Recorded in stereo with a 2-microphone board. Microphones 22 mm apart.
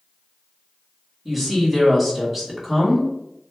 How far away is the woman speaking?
About 1.9 m.